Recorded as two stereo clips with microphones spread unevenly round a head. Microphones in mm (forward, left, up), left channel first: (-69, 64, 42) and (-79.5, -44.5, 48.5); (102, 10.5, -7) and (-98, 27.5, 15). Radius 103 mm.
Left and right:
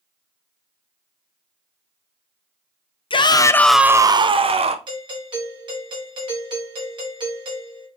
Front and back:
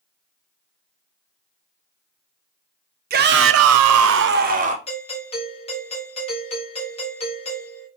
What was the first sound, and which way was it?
A shout, 125° left.